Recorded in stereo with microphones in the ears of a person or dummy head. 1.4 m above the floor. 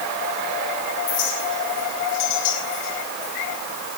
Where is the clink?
70° left (ahead or behind), 5.5 m.